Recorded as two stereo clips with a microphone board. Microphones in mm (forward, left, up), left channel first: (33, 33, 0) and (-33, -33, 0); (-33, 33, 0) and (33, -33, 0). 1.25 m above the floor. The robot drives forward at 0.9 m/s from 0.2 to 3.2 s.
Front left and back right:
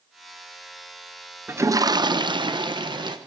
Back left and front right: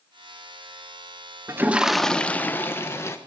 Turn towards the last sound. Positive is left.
turn(degrees=-165)